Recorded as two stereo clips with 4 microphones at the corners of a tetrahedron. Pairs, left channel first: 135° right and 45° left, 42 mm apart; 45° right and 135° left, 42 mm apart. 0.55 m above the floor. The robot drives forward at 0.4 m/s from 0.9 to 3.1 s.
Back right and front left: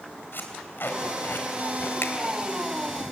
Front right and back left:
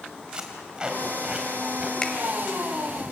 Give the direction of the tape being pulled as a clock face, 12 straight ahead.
5 o'clock.